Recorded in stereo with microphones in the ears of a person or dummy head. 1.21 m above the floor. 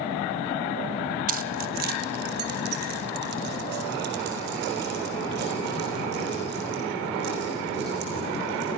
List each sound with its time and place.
1.3 s keys jangling: 45° right (ahead or behind), 0.6 m; by 8.7 s 65° right (ahead or behind), 6.5 m